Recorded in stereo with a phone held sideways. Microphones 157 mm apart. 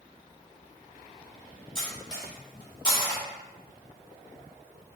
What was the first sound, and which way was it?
Cutlery clinking, 30° left (ahead or behind).